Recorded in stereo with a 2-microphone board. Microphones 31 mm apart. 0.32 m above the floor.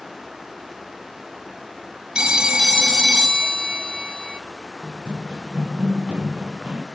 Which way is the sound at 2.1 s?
35° right (ahead or behind).